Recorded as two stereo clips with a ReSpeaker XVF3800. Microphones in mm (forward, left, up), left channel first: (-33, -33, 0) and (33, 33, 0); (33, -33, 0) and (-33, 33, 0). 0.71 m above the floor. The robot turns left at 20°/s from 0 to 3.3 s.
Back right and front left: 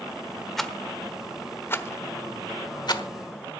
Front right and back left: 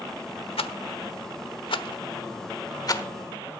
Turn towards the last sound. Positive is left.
turn(degrees=-100)